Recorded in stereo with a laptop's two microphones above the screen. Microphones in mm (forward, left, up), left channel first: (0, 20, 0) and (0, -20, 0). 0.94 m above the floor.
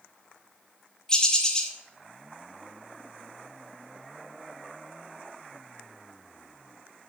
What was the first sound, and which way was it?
A bird, 20° left (ahead or behind).